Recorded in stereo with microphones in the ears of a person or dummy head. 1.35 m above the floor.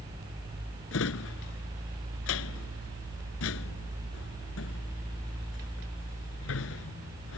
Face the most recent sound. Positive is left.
turn(degrees=75)  # may be behind; listen again after turning